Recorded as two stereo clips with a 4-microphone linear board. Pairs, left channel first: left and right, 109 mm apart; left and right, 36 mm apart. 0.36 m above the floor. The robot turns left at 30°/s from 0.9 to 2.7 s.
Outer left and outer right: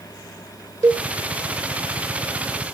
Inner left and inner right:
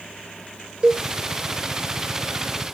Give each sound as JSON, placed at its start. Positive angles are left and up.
{"t": 0.8, "sound": "a cowbell", "side_deg": -35, "distance_m": 0.9}